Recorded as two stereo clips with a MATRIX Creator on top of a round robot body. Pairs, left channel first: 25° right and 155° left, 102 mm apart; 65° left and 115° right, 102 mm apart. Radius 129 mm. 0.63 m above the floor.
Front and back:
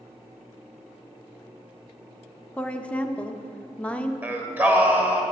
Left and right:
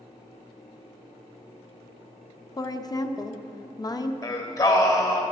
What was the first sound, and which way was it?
A woman speaking, 50° left.